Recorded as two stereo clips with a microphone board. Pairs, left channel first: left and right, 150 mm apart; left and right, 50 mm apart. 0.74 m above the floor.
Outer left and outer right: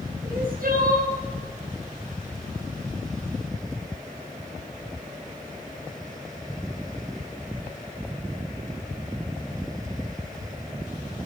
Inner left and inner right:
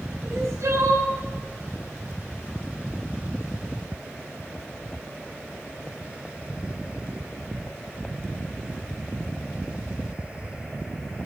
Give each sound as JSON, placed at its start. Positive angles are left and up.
{"t": 0.2, "sound": "crying", "side_deg": -80, "distance_m": 7.0}